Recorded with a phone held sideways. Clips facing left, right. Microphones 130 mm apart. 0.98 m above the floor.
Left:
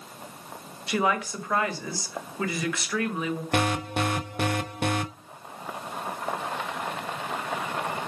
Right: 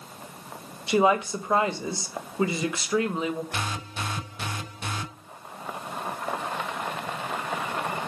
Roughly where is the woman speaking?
Right.